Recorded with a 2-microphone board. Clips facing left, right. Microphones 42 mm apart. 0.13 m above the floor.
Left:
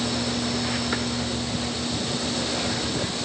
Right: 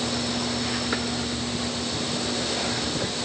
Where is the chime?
I don't hear a chime.